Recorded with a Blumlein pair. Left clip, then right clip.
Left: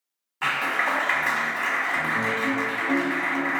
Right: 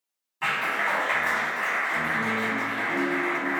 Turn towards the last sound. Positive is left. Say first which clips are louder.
# left 2 dB
turn(degrees=20)